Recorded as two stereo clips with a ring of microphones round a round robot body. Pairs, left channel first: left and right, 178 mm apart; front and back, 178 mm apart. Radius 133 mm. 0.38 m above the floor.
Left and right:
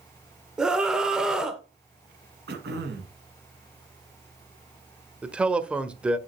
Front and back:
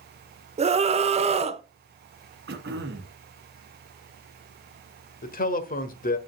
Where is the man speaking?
5° right, 1.2 m.